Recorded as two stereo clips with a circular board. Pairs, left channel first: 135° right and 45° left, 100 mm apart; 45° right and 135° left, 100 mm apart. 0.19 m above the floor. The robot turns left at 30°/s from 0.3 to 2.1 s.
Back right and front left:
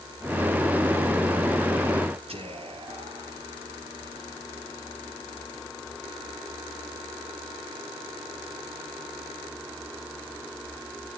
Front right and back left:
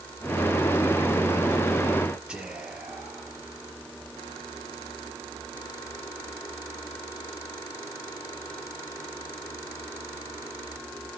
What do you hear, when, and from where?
2.3 s whispering: 55° left, 4 m